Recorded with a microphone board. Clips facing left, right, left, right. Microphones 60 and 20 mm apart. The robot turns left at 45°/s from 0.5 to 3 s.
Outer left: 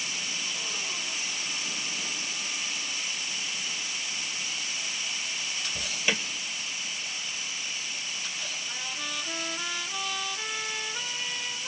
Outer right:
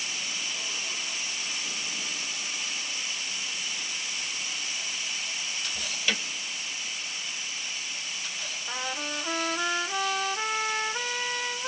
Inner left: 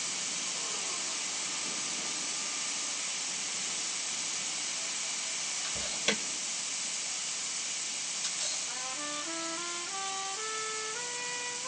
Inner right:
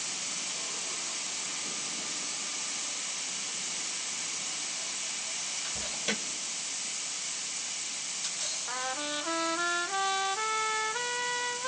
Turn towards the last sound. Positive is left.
turn(degrees=-55)  # may be behind; listen again after turning